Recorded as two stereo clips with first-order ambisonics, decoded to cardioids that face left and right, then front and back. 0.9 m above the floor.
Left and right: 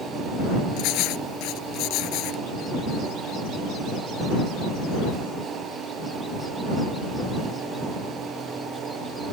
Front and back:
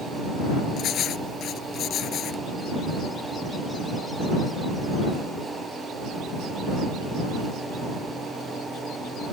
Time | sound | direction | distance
0.8 | writing | 55° left | ?